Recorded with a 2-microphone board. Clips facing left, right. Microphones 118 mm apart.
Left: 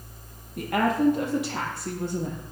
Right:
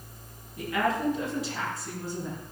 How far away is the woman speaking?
About 6 m.